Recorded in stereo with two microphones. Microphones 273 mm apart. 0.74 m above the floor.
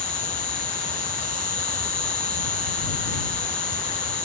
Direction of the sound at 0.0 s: 65° right (ahead or behind).